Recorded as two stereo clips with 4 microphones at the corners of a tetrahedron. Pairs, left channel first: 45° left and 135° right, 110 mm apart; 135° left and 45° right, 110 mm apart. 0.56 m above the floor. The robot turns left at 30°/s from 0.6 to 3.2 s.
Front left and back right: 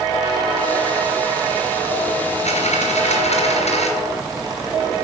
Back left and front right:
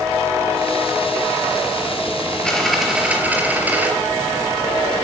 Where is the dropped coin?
55° left, 3.5 m; by 3.9 s 30° left, 3.5 m.